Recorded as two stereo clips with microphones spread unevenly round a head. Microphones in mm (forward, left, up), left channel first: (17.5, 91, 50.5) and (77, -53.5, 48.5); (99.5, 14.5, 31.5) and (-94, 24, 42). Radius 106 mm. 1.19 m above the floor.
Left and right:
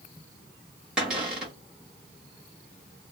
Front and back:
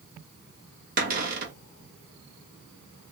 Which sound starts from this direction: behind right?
A cupboard door, at 1.0 s.